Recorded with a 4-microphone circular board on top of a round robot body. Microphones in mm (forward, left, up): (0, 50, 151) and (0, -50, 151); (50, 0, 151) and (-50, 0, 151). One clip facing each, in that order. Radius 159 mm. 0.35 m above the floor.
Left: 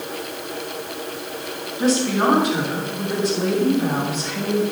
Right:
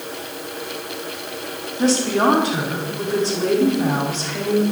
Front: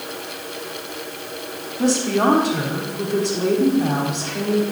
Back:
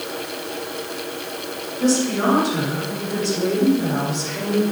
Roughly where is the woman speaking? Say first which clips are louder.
Right 1 dB, front 1 dB; ahead right.